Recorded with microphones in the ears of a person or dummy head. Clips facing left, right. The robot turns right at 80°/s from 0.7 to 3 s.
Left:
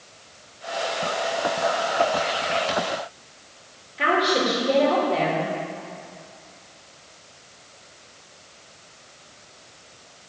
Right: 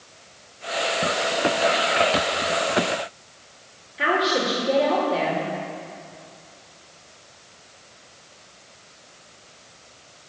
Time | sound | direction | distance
4.0 | a woman speaking | 5° right (ahead or behind) | 2.5 m